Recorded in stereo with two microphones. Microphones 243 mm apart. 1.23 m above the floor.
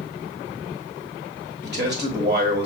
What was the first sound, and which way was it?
A man speaking, 40° right (ahead or behind).